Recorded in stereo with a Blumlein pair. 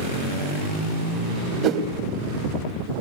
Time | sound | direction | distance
1.6 | a whoosh | 35° right | 1.9 m